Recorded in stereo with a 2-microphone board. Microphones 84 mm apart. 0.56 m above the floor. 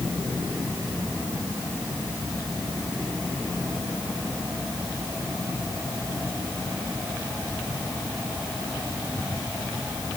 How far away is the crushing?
I don't hear crushing.